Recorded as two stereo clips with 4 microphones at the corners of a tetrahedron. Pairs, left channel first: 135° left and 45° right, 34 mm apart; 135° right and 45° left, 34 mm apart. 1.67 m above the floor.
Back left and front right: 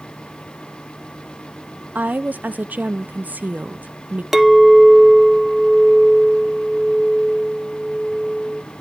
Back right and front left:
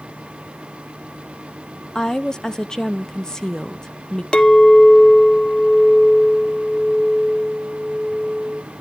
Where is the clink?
130° right, 0.6 m.